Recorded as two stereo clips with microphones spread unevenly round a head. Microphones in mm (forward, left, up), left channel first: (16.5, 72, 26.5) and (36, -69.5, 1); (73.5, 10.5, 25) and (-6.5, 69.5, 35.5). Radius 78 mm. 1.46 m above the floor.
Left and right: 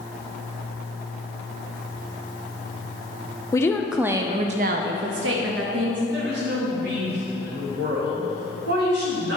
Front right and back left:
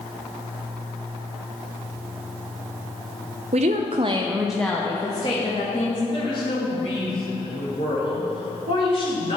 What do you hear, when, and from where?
3.5 s a woman speaking: 160° left, 0.6 m; by 6.0 s 90° right, 1.1 m
6.1 s a woman speaking: 85° right, 3 m